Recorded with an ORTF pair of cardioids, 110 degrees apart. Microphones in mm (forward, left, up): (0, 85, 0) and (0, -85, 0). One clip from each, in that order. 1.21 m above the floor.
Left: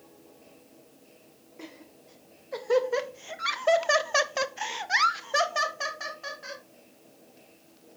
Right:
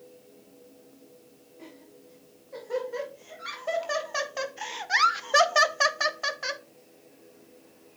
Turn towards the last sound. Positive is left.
turn(degrees=-65)